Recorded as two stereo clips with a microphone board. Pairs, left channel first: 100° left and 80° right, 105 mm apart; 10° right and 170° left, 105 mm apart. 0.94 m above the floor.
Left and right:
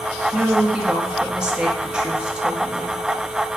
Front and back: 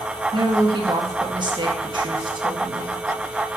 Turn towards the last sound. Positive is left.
turn(degrees=-160)